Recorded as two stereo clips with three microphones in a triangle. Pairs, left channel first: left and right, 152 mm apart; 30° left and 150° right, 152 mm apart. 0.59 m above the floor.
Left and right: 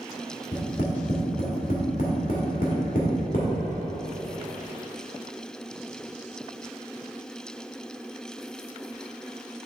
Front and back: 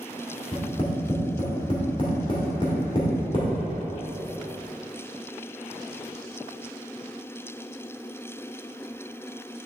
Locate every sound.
0.5 s tapping: 80° left, 1.7 m